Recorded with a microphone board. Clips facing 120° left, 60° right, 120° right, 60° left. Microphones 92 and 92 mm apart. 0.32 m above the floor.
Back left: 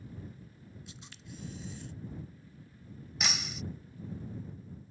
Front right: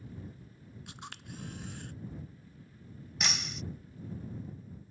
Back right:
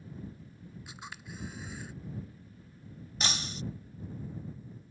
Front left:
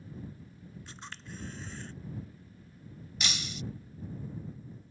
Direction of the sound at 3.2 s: 150° right.